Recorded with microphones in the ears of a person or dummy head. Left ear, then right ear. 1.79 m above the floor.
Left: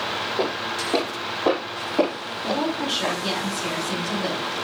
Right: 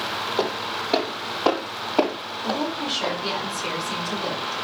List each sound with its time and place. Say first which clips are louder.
0.4 s footsteps: even; 55° right (ahead or behind), 3 m; by 3.2 s 35° right (ahead or behind), 3.5 m
2.4 s a woman speaking: left 2 dB; 5° left (ahead or behind), 5 m